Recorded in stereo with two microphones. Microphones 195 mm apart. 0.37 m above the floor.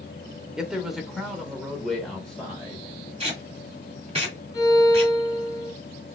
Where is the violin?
20° left (ahead or behind), 1.2 m.